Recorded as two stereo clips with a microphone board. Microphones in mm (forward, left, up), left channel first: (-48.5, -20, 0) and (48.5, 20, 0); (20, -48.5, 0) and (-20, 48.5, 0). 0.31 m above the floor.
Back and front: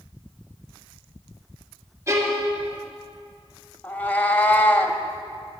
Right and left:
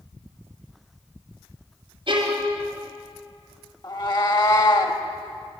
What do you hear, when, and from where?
2.1 s a violin: 80° left, 3 m
3.8 s a cat meowing: 90° right, 0.8 m